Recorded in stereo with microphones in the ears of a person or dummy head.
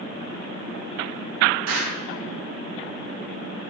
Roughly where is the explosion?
Right.